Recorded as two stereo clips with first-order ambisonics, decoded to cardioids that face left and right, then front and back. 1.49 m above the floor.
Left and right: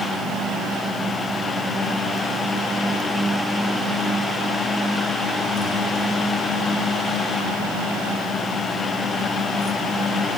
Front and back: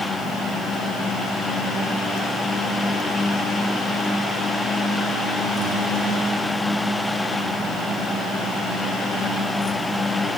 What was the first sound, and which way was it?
Only background noise.